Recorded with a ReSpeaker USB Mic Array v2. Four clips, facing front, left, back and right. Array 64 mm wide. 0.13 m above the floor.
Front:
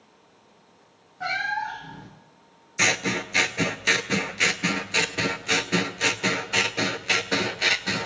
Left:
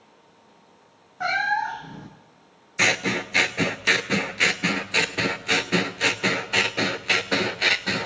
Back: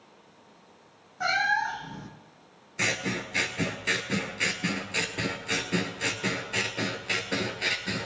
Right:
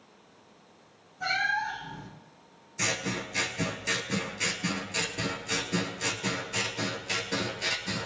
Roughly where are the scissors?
Left.